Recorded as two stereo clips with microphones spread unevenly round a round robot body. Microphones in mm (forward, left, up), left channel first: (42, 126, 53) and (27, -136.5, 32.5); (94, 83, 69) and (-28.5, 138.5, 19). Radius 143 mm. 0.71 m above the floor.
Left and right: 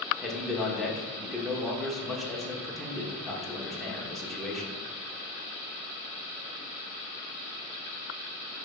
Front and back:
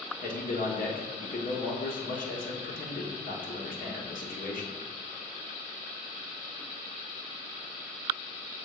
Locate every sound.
0.2 s a man speaking: 5° right, 1.6 m